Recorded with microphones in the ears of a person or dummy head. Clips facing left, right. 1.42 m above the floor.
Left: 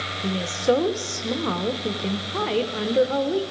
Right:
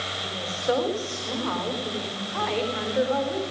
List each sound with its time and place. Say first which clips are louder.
0.2 s a woman speaking: left 6 dB; 45° left (ahead or behind), 0.8 m